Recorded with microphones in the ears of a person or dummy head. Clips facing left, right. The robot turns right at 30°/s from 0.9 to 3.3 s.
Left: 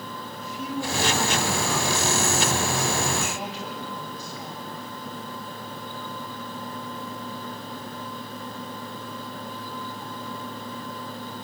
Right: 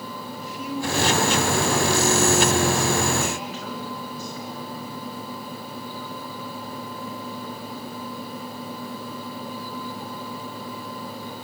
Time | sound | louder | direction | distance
0.4 | a woman speaking | right 1 dB | 85° left | 6.5 m